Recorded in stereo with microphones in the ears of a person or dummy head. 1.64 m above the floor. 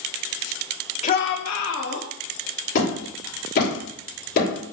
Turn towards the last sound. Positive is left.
turn(degrees=45)  # may be behind; listen again after turning